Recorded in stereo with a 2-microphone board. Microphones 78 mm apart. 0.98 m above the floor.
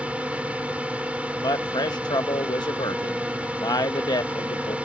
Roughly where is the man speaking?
Left.